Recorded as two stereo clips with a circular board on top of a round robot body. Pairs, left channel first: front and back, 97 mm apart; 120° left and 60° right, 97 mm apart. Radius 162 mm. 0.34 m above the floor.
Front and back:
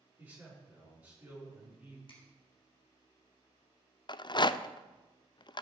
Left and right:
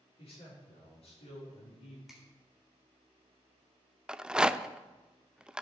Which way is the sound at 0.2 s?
105° left.